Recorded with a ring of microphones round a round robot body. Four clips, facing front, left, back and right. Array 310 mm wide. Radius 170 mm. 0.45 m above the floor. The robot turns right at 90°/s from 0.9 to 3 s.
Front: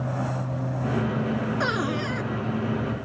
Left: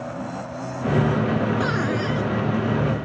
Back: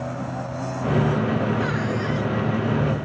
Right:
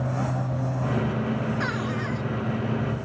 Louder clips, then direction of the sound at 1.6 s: Left 5 dB, back 1 dB; 20° left.